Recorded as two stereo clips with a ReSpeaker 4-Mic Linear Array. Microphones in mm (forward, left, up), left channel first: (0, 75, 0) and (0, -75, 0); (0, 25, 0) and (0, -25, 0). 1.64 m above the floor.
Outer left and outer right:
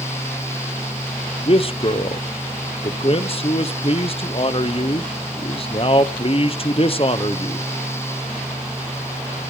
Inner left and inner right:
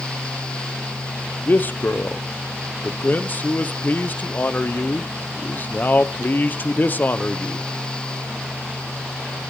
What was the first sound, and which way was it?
A man speaking, 40° left (ahead or behind).